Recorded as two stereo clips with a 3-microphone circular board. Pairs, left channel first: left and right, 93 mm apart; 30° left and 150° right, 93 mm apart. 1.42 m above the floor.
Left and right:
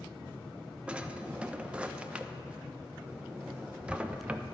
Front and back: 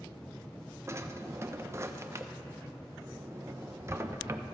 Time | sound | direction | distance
0.9 | a drawer | 150° right | 0.5 m